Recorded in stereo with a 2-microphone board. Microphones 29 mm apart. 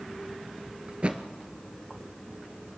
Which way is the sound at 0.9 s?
40° right (ahead or behind).